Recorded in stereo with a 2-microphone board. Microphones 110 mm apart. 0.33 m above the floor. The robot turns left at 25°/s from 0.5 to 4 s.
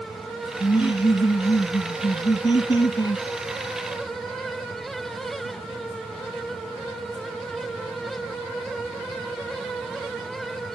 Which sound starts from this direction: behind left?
Laughter, at 0.6 s.